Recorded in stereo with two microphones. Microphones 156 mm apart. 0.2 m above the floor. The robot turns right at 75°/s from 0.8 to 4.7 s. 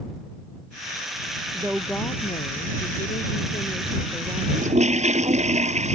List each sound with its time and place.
1.5 s a woman speaking: 20° right; by 5.5 s 145° right
4.5 s a toilet flushing: 60° right (ahead or behind); by 6.0 s 50° right (ahead or behind)